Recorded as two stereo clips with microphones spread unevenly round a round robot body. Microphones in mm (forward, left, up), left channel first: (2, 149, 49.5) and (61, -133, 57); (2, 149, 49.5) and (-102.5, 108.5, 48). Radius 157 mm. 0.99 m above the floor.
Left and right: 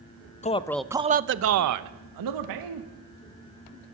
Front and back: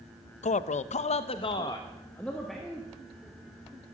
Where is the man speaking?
35° left, 0.7 m; by 2.9 s 70° right, 1.5 m.